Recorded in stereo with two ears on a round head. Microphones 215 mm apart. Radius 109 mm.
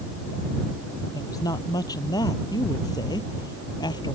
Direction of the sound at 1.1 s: 15° left (ahead or behind).